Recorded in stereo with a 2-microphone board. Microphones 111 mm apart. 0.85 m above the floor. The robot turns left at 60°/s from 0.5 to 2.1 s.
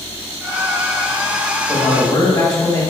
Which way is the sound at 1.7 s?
25° left (ahead or behind).